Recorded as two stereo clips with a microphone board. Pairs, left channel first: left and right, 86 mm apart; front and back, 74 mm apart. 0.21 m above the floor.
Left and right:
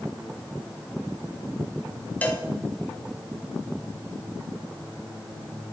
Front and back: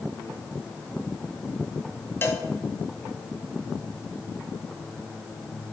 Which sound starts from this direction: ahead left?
A cowbell, at 2.2 s.